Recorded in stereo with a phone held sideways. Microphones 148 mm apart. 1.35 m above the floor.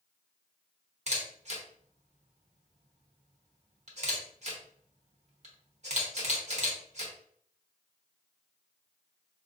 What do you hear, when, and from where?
1.1 s a camera shutter: 50° right (ahead or behind), 0.9 m